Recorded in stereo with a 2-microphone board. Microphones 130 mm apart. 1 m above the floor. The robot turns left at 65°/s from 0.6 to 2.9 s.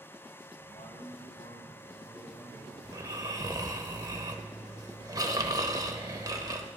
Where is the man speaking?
135° left, 5.5 m; by 2.7 s straight ahead, 5.5 m.